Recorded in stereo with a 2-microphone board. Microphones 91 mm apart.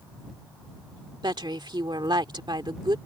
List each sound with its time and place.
1.2 s a woman speaking: 55° right (ahead or behind)